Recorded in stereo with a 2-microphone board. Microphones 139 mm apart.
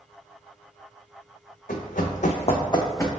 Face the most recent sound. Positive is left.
turn(degrees=15)  # may be behind; listen again after turning